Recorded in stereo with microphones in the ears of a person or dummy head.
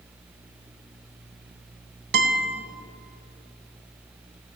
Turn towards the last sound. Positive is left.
turn(degrees=-55)  # may be behind; listen again after turning